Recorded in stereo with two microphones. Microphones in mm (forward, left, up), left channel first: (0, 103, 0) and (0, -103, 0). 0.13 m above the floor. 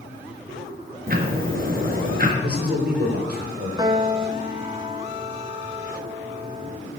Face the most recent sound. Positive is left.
turn(degrees=-20)  # may be behind; listen again after turning